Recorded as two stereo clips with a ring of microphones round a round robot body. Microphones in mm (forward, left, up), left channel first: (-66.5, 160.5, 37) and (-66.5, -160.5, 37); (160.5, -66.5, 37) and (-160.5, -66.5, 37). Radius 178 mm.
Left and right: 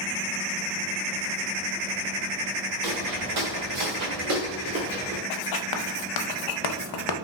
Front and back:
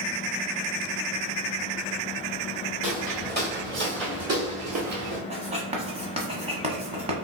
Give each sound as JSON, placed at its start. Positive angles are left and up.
{"t": 2.8, "sound": "footsteps", "azimuth_deg": -110, "distance_m": 2.0}
{"t": 5.3, "sound": "writing", "azimuth_deg": 105, "distance_m": 0.6}